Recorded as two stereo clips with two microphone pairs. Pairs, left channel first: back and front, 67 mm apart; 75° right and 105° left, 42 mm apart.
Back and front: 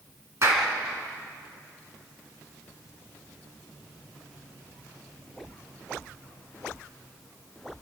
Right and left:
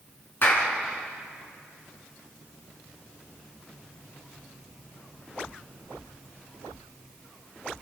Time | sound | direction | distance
0.4 | a clap | 40° right | 4.5 m